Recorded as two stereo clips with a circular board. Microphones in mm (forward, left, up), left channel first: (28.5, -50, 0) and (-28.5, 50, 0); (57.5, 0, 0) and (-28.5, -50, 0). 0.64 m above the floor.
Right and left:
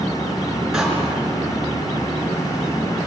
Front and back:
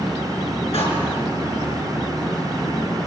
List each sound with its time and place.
0.7 s a door slam: 35° left, 5 m